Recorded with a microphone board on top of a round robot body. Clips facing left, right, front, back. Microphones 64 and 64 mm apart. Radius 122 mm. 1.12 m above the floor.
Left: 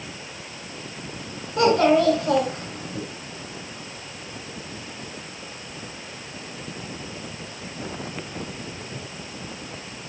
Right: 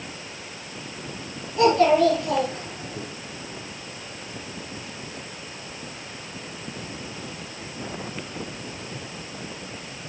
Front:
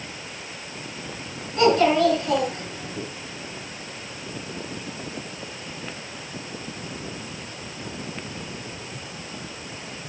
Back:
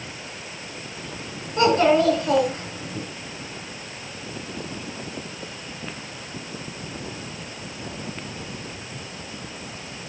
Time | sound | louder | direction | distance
1.6 | a child speaking | even, even | 115° left | 8 m